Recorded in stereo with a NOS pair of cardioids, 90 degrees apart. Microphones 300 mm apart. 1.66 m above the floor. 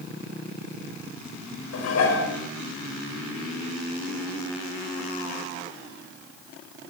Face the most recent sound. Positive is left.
turn(degrees=55)